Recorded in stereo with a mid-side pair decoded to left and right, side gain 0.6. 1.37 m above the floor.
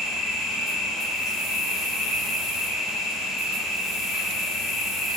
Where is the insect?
65° left, 1.6 m.